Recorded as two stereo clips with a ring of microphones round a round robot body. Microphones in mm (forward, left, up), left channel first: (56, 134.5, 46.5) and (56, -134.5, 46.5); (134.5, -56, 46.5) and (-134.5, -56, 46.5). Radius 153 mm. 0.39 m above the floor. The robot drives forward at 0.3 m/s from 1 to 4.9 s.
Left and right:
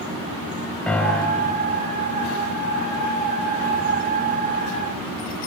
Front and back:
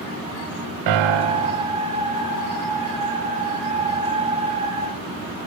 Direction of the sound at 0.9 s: 175° left.